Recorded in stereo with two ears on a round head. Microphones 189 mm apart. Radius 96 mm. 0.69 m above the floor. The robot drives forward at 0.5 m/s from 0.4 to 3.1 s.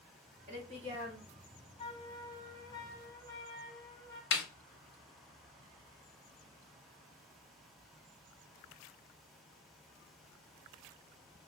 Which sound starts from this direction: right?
A woman speaking, at 0.5 s.